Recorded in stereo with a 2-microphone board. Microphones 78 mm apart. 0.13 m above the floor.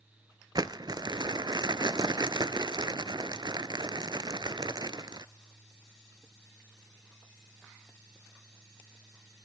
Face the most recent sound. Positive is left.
turn(degrees=-60)  # may be behind; listen again after turning